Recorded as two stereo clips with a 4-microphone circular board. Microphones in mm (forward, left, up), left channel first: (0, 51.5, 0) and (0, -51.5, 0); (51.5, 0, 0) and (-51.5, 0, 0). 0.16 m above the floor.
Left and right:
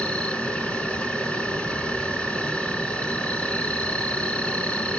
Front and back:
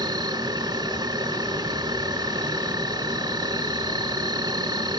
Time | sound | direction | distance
0.0 | an insect | 165° left | 1.1 m